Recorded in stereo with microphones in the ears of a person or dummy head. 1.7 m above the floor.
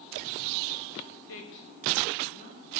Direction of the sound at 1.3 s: 65° left (ahead or behind).